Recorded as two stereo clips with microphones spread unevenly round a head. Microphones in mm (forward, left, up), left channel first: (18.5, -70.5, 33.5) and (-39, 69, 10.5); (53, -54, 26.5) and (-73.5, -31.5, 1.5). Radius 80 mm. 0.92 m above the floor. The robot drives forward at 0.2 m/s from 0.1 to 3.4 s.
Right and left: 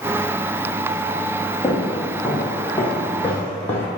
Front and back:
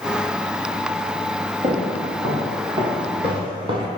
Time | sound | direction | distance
1.6 | footsteps | 150° right | 2.5 m